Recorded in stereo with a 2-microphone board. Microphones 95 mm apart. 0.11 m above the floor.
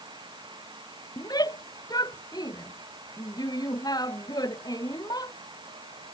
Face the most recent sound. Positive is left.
turn(degrees=45)  # may be behind; listen again after turning